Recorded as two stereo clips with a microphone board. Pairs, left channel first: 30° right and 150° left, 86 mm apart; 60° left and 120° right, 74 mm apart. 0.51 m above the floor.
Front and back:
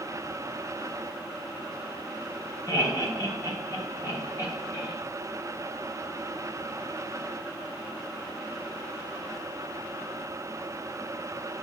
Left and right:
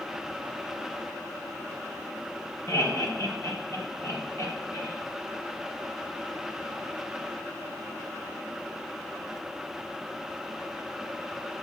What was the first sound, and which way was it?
Laughter, 15° left.